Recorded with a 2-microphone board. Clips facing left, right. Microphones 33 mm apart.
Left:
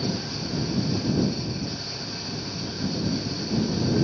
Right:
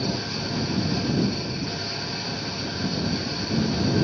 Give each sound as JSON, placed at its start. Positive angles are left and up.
{"t": 0.0, "sound": "an engine running", "side_deg": -25}